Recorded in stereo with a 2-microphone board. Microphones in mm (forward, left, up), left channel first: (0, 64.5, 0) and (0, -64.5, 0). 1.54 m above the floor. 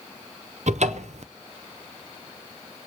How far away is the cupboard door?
About 0.5 m.